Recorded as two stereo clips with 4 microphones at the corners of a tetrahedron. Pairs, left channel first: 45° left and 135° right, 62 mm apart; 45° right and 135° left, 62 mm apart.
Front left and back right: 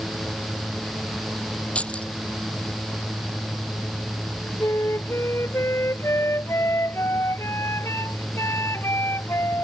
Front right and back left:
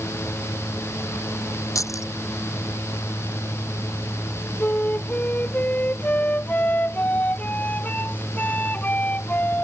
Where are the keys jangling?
25° right.